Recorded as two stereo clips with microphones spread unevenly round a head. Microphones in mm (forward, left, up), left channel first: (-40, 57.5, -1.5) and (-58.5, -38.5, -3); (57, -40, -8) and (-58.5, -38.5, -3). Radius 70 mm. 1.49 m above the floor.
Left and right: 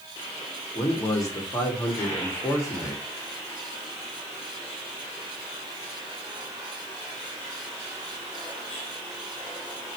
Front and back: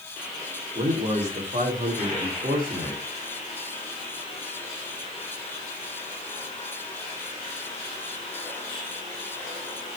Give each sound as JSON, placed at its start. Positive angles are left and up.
{"t": 0.8, "sound": "a man speaking", "azimuth_deg": 135, "distance_m": 3.0}